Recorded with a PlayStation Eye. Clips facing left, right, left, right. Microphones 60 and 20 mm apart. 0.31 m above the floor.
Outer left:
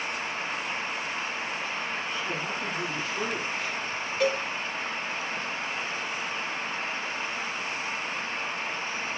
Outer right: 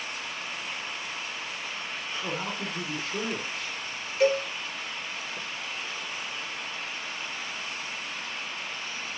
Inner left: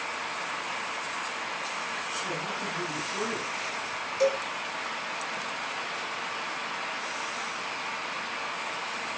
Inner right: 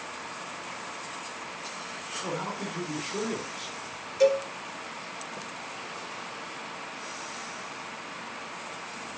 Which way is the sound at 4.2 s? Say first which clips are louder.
Outer right 3 dB, inner right 4 dB; 5° right (ahead or behind).